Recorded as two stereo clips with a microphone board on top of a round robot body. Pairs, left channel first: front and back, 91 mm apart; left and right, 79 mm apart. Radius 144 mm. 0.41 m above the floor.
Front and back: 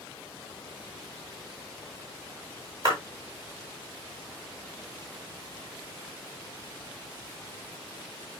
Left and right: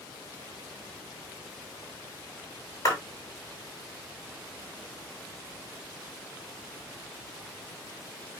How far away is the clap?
About 8 m.